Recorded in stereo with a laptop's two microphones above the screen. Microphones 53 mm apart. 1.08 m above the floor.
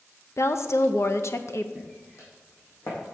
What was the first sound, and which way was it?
A woman speaking, 60° left (ahead or behind).